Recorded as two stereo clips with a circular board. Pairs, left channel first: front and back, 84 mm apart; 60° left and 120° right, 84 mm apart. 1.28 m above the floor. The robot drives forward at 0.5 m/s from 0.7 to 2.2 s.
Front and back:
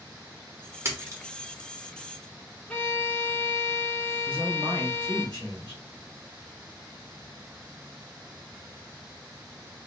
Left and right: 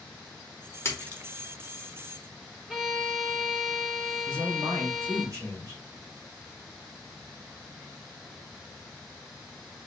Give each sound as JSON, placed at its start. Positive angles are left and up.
{"t": 0.8, "sound": "a splash", "azimuth_deg": 120, "distance_m": 0.8}
{"t": 2.7, "sound": "a violin", "azimuth_deg": -30, "distance_m": 1.0}
{"t": 4.2, "sound": "a man speaking", "azimuth_deg": -170, "distance_m": 2.5}